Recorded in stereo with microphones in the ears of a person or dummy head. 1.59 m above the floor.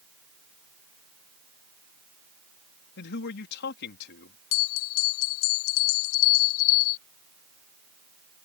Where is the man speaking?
60° left (ahead or behind).